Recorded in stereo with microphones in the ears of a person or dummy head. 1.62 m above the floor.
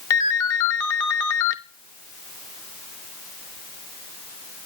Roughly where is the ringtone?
Centre.